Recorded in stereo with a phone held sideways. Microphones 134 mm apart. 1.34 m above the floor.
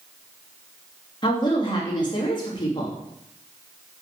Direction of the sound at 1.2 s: 35° left (ahead or behind).